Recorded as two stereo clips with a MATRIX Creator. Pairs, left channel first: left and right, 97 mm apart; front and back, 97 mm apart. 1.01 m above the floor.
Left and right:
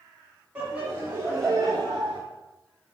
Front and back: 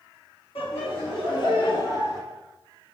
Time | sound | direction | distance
0.6 | laughter | 15° right | 1.6 m